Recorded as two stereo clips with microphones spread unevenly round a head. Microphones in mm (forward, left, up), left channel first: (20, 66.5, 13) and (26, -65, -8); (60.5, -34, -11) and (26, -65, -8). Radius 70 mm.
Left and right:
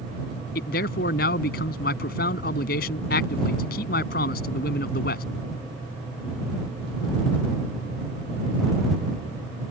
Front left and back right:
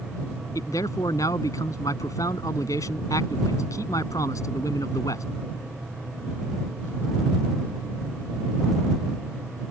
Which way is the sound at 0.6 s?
85° left.